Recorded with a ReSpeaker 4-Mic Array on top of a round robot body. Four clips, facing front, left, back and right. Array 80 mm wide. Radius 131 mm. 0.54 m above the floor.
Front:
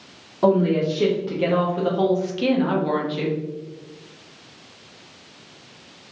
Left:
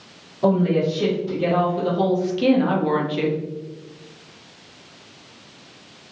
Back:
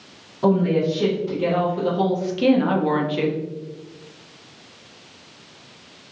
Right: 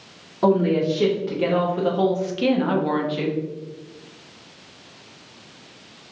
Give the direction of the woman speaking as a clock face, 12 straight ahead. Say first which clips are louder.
Even, front 1 dB; 1 o'clock.